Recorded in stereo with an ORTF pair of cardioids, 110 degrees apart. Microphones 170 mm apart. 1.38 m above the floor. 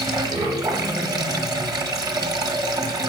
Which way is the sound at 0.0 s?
25° right.